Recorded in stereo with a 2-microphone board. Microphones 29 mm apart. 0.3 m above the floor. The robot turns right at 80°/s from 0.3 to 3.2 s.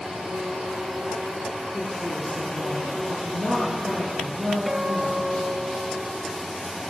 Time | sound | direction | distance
1.7 | a woman speaking | 90° left | 6 m
4.7 | a guitar | 25° right (ahead or behind) | 0.8 m